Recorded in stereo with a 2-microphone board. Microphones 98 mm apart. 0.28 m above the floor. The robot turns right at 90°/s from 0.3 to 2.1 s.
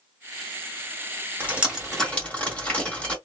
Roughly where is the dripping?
Centre.